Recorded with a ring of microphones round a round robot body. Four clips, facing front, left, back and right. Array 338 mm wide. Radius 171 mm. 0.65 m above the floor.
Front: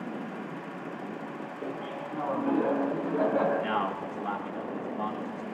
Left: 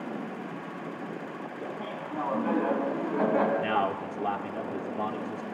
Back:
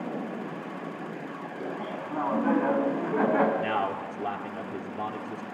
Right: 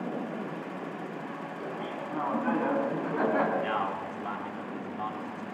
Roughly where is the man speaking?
Behind left.